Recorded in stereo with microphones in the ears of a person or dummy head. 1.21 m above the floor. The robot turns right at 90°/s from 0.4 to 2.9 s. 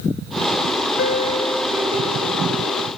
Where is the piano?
120° left; by 2.9 s 70° right.